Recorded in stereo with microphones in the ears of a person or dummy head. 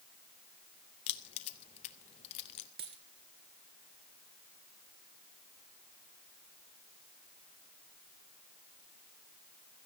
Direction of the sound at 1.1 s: 30° left (ahead or behind).